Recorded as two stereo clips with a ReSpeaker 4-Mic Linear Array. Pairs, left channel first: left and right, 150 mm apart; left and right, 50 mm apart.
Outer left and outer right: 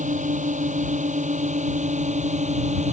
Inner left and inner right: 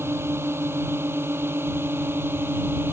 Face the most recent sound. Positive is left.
turn(degrees=-50)  # may be behind; listen again after turning